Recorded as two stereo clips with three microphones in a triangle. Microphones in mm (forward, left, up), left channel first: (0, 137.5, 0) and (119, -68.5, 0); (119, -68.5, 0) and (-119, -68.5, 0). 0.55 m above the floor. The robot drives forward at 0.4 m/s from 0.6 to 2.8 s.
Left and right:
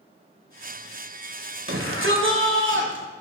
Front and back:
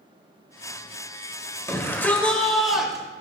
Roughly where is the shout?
Right.